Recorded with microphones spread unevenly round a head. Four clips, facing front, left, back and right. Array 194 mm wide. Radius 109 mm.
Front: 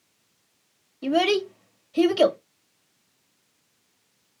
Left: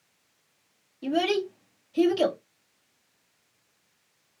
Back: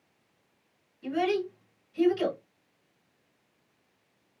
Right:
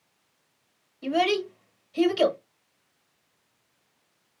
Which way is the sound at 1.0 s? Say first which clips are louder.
Right 1 dB, front 6 dB; straight ahead.